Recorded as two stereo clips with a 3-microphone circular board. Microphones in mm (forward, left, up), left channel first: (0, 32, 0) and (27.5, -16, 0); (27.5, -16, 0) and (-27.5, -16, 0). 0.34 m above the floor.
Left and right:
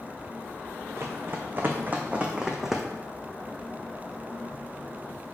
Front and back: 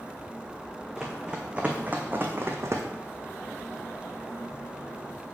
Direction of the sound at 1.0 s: 100° right.